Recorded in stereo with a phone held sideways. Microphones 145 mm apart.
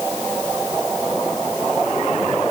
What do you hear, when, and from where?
Only background noise.